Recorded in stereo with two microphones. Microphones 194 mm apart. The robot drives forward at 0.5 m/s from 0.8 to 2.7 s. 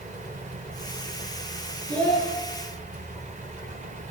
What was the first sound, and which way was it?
A child speaking, 5° left (ahead or behind).